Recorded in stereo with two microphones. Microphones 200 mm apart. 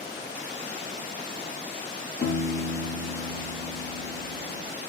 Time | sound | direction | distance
2.2 | a piano | 60° left (ahead or behind) | 2 m